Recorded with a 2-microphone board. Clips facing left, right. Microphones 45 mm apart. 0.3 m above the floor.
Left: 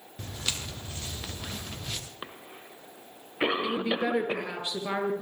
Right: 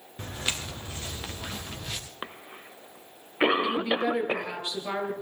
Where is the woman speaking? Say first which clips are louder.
Right 2 dB; 10° left (ahead or behind), 5 m.